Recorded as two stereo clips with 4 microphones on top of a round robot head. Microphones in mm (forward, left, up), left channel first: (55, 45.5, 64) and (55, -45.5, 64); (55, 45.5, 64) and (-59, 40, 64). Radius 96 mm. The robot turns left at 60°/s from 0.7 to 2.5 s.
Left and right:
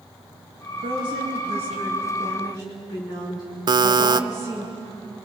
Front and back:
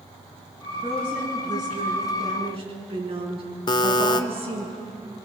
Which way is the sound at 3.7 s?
50° right.